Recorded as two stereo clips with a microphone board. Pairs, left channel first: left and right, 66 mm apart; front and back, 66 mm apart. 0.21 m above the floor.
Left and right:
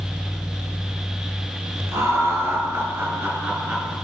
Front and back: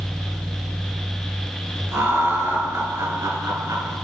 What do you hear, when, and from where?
1.9 s laughter: 130° right, 4.5 m; by 4.0 s 165° right, 3.5 m